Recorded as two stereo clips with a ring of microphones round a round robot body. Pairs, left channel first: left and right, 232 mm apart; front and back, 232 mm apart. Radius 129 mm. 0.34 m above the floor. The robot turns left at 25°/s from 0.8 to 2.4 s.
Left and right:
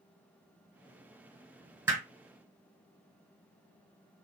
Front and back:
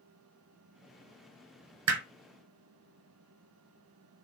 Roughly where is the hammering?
Behind.